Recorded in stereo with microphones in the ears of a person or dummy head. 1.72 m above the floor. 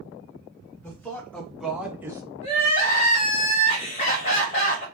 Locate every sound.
0.8 s a man speaking: 10° left (ahead or behind), 1.3 m; by 2.3 s 25° right (ahead or behind), 0.6 m
2.4 s crying: 35° left (ahead or behind), 1.5 m